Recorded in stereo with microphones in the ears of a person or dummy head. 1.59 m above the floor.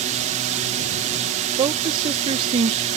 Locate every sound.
0.0 s a drone: 40° right (ahead or behind)
1.6 s a woman speaking: 30° right (ahead or behind)